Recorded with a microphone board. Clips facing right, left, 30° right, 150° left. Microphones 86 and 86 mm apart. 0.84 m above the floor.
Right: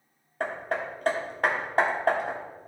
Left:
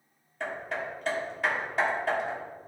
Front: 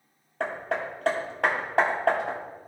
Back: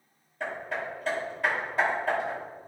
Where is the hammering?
50° right, 1.5 m.